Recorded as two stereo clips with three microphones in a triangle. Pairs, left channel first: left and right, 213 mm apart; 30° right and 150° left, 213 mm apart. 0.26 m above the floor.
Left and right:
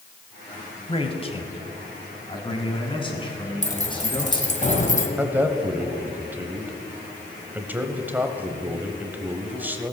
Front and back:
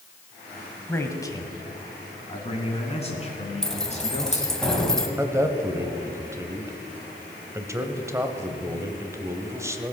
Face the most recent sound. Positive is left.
turn(degrees=-155)